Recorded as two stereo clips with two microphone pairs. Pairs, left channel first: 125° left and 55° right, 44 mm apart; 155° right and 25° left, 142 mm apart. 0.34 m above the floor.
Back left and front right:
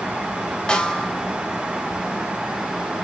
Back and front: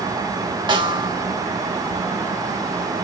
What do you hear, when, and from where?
0.7 s a snare drum: 65° left, 0.6 m